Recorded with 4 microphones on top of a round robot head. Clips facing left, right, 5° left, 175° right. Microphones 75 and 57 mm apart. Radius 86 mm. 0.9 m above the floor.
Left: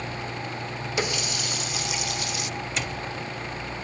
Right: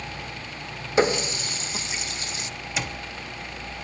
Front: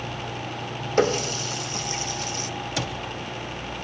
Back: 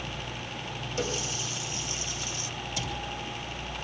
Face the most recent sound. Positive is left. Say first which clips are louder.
# right 3 dB, front 5 dB
turn(degrees=-5)